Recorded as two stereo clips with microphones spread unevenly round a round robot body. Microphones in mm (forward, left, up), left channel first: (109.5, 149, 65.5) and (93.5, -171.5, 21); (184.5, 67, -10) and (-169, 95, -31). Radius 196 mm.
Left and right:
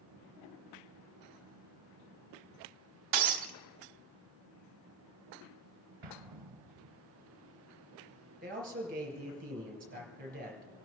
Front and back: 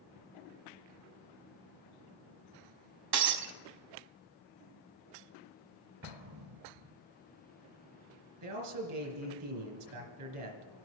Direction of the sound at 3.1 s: 135° right.